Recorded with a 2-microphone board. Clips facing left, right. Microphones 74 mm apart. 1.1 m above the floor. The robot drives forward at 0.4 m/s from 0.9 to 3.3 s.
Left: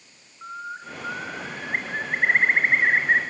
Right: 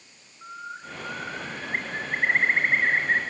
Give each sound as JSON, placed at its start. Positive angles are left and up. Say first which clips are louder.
{"t": 0.4, "sound": "a bird", "louder": "left 3 dB", "side_deg": 20, "distance_m": 3.0}